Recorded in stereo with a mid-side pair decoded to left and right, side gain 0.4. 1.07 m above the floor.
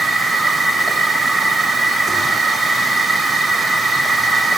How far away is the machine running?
About 5.5 m.